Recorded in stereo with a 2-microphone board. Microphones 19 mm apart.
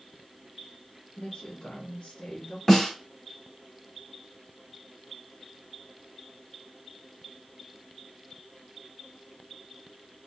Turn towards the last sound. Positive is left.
turn(degrees=20)  # may be behind; listen again after turning